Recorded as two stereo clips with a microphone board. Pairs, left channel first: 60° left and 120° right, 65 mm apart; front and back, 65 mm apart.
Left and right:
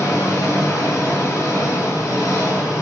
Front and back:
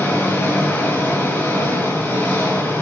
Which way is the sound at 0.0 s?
45° left.